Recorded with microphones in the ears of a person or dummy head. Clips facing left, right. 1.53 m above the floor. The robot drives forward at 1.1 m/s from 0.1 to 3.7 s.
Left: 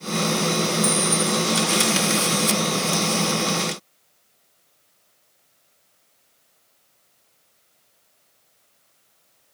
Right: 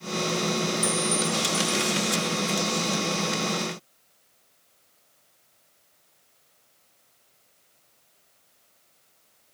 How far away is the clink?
About 5 m.